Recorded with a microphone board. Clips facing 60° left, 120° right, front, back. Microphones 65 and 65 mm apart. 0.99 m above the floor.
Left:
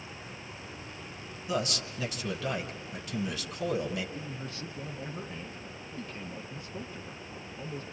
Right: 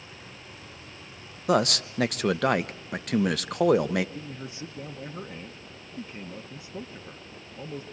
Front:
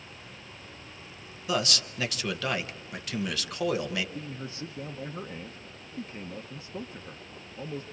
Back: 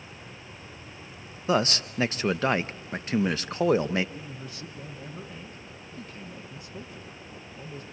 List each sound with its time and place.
1.5 s a man speaking: 125° right, 0.9 m
4.2 s a man speaking: 55° right, 1.0 m